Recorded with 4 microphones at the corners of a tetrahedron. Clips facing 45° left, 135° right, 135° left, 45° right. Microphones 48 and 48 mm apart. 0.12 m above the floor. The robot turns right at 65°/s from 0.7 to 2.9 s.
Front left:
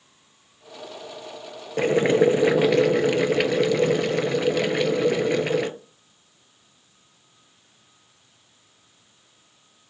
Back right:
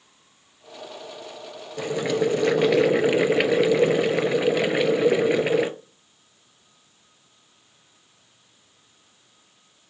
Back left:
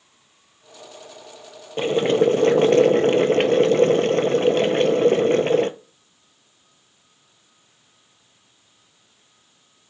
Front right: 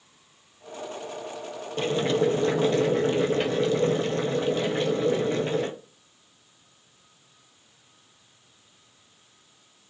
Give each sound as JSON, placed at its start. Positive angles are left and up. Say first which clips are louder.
{"t": 1.8, "sound": "boiling", "louder": "front left 5 dB, back left 6 dB", "azimuth_deg": 75, "distance_m": 0.5}